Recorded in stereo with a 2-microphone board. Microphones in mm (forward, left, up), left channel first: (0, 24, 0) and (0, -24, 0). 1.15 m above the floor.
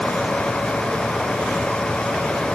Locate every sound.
Only background noise.